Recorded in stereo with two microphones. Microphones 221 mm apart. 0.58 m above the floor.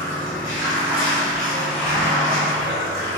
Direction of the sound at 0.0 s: 60° right (ahead or behind).